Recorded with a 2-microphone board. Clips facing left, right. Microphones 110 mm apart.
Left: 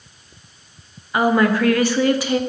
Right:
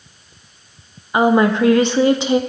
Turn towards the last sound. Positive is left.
turn(degrees=-25)  # may be behind; listen again after turning